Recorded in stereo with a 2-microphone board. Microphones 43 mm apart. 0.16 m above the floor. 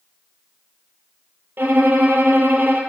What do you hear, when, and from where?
1.6 s a violin: 55° right (ahead or behind), 0.6 m